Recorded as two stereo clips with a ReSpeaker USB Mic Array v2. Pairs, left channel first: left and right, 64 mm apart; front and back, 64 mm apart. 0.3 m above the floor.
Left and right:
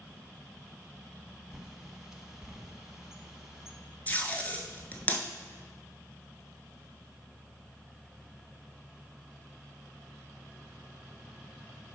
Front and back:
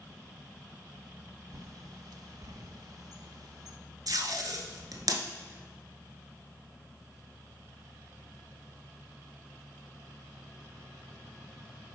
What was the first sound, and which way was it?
A bird, 170° right.